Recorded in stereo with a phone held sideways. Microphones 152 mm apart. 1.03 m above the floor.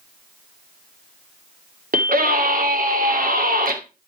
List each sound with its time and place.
1.9 s a scream: 65° right (ahead or behind), 2.5 m